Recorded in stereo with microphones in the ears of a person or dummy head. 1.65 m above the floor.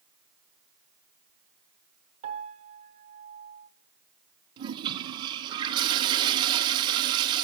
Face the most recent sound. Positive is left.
turn(degrees=-20)  # may be behind; listen again after turning